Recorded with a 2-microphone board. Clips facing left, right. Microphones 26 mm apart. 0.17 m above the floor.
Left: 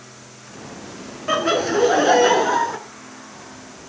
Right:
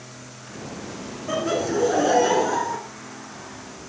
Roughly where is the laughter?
Left.